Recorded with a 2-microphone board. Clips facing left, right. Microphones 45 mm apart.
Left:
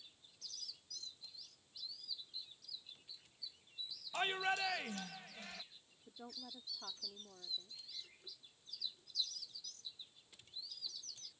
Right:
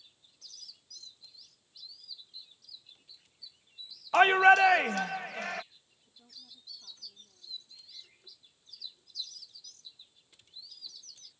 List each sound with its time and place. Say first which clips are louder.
4.1 s a shout: right 18 dB; 75° right (ahead or behind)
6.1 s a woman speaking: left 6 dB; 50° left (ahead or behind)